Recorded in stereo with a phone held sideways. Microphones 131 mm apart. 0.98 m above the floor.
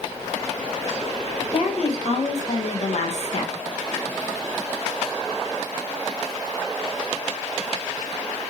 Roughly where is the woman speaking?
Left.